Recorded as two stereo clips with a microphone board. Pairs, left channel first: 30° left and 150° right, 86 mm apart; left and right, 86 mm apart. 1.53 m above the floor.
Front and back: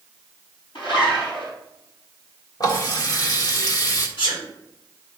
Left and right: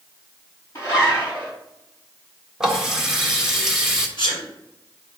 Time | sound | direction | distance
0.8 | a zipper | 35° left | 4.5 m
2.6 | a running tap | 5° right | 1.4 m
4.2 | a sneeze | 60° left | 4.5 m